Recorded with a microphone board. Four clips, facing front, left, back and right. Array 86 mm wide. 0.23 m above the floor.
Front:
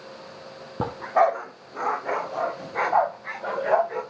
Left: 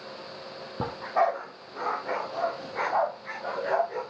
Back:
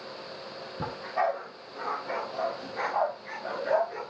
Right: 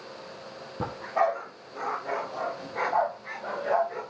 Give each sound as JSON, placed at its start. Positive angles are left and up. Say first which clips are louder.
{"t": 0.8, "sound": "a dog barking", "louder": "left 1 dB, front 8 dB", "azimuth_deg": 15, "distance_m": 1.9}